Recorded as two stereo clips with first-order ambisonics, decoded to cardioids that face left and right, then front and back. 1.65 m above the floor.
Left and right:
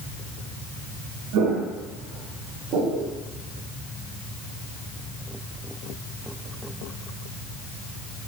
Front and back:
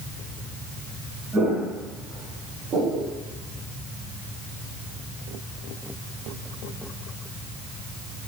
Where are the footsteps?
110° right, 4 m; by 3.1 s 125° right, 4 m.